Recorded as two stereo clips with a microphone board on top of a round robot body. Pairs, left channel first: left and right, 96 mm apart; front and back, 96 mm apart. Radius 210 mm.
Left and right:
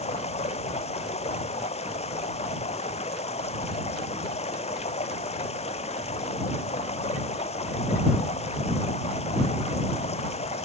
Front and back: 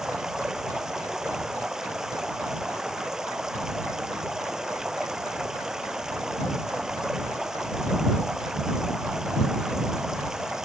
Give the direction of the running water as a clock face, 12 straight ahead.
9 o'clock.